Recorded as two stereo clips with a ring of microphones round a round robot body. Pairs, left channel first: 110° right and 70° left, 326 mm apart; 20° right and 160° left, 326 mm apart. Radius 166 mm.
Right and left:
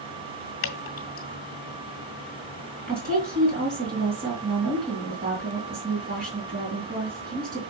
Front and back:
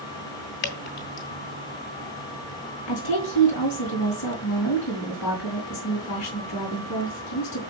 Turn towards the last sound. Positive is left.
turn(degrees=5)